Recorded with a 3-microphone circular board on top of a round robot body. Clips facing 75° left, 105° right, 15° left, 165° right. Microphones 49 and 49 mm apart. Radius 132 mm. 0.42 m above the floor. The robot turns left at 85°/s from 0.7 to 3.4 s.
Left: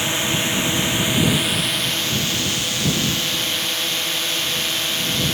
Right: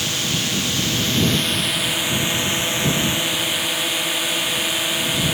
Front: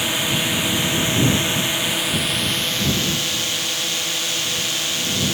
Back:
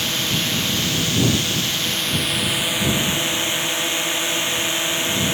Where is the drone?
65° left; by 5.3 s 165° right.